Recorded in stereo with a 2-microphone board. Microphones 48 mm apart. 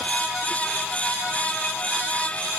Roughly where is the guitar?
No guitar in this recording.